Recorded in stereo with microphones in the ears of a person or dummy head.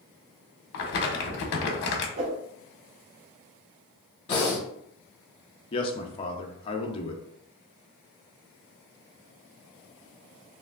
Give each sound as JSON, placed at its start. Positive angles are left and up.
{"t": 0.7, "sound": "crumpling", "side_deg": 55, "distance_m": 0.8}
{"t": 2.2, "sound": "a whoosh", "side_deg": -40, "distance_m": 0.5}
{"t": 4.3, "sound": "breathing", "side_deg": 25, "distance_m": 1.1}
{"t": 5.7, "sound": "a man speaking", "side_deg": 30, "distance_m": 0.6}